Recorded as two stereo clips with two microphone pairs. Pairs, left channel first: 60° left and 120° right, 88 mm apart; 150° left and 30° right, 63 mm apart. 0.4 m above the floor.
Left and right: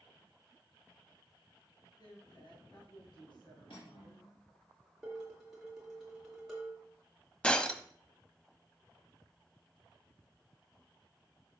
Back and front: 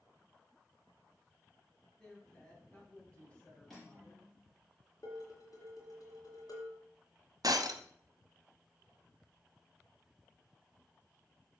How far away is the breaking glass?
About 0.7 m.